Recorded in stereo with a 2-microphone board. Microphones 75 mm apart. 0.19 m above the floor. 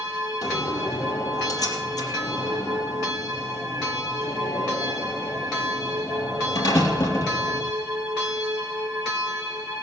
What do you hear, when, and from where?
0.4 s a door slam: 60° left (ahead or behind), 4.5 m